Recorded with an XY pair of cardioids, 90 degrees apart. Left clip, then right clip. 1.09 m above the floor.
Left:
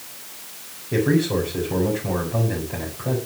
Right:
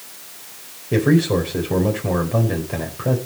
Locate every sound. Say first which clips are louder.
0.9 s a man speaking: right 3 dB; 50° right, 4.5 m